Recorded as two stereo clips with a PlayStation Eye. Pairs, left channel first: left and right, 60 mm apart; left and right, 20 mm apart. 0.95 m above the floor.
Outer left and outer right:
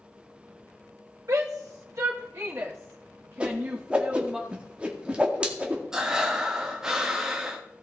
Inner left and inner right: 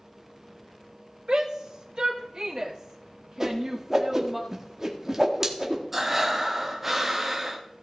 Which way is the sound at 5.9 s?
10° right (ahead or behind).